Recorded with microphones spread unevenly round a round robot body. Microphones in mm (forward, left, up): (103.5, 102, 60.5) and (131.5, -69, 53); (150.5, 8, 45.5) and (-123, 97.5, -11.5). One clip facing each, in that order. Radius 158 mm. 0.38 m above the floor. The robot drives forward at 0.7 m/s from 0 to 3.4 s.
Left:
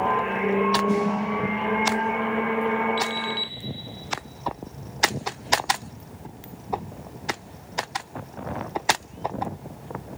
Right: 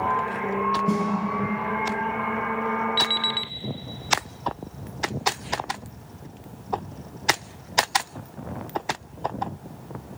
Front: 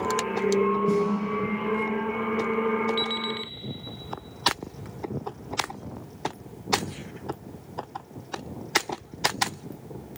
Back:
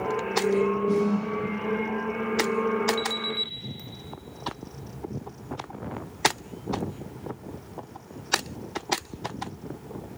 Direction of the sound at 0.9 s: 80° right.